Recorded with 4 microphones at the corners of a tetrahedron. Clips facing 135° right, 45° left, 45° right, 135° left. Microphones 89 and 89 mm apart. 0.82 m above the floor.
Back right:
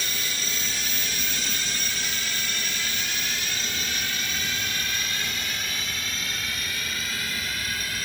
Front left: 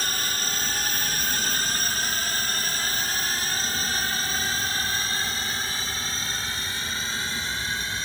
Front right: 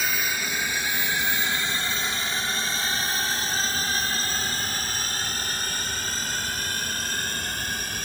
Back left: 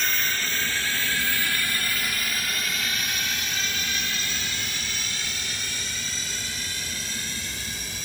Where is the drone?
35° left; by 8.1 s 15° right.